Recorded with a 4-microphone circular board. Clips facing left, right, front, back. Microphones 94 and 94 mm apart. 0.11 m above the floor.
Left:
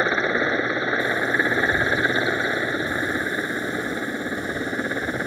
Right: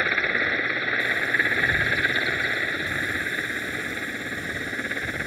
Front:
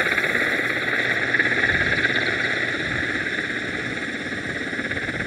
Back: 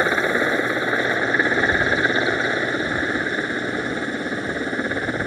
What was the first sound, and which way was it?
A helicopter, 135° left.